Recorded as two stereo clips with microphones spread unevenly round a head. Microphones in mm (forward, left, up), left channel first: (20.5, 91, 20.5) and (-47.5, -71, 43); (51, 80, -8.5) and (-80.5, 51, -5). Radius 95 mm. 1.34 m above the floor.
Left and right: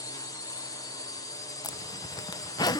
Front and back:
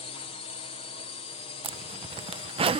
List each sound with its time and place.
0.0 s a drone: 15° left
1.6 s a zipper: 140° left